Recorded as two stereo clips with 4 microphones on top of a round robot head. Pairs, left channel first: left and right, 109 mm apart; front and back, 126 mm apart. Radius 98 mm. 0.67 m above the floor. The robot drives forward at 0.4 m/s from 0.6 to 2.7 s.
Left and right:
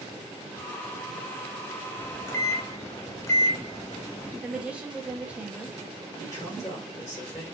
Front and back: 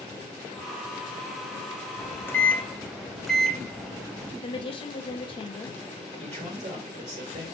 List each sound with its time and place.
2.0 s a microwave: 40° left, 0.7 m; by 4.3 s 85° left, 0.7 m
4.4 s a woman speaking: 15° right, 0.6 m
6.2 s a man speaking: 150° left, 2.5 m